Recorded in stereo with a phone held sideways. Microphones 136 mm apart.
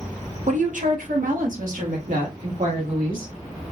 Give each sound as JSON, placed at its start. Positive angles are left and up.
{"t": 0.5, "sound": "a woman speaking", "side_deg": -60, "distance_m": 1.0}